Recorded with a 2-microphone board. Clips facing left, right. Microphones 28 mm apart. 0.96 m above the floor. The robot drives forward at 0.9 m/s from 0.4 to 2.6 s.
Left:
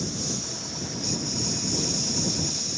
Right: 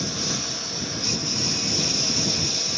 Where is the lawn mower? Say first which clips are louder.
Right 4 dB; 45° right (ahead or behind).